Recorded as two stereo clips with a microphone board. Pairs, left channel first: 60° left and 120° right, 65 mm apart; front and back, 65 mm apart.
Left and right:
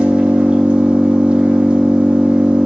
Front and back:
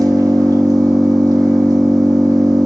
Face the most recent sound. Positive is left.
turn(degrees=165)